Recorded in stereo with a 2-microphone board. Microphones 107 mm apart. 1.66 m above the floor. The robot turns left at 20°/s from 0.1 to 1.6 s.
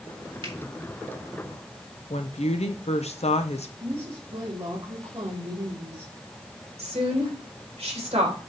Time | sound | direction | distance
0.4 | a finger snap | 50° right (ahead or behind) | 2 m
2.1 | a woman speaking | 85° left | 1.0 m
3.8 | a woman speaking | 40° right (ahead or behind) | 3 m
6.8 | a woman speaking | 70° right (ahead or behind) | 3 m